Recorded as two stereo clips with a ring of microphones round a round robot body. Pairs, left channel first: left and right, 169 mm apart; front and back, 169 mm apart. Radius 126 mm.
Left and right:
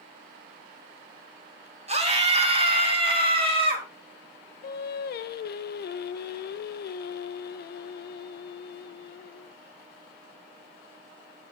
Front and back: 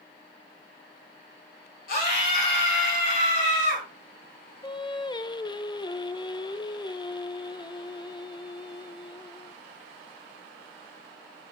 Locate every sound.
1.9 s a scream: 40° right, 3 m; by 3.9 s 30° right, 4.5 m
4.6 s singing: 65° left, 0.6 m